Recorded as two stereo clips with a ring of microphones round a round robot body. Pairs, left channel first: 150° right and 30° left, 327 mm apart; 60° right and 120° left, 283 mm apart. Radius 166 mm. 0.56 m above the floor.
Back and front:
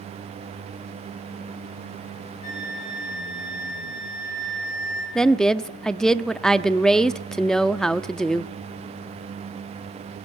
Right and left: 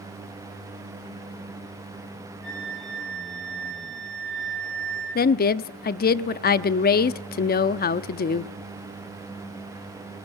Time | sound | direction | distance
2.4 | a flute | straight behind | 10 m
5.2 | a woman speaking | 65° right | 0.7 m